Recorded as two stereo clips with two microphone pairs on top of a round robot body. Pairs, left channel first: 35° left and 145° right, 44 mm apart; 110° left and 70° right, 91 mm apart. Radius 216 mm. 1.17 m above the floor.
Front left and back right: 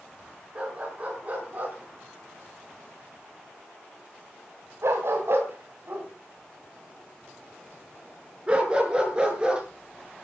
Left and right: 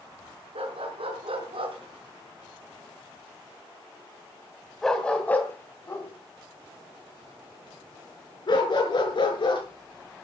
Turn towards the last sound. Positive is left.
turn(degrees=145)